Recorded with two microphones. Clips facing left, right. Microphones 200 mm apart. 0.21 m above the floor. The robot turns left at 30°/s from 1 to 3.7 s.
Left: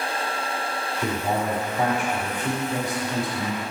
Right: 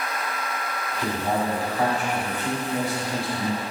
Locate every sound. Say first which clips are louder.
1.0 s a man speaking: even; 5° left (ahead or behind), 1.4 m; by 3.6 s 20° left (ahead or behind), 1.4 m